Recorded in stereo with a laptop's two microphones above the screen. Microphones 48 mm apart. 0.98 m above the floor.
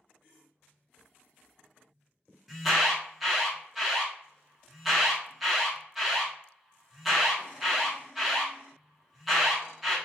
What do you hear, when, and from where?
2.5 s an alarm: 5° right (ahead or behind), 1.0 m